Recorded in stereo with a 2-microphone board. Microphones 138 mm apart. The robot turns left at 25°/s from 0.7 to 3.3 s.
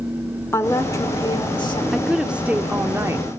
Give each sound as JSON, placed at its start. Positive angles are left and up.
{"t": 0.5, "sound": "a woman speaking", "side_deg": 20, "distance_m": 1.9}
{"t": 1.9, "sound": "a woman speaking", "azimuth_deg": 0, "distance_m": 1.1}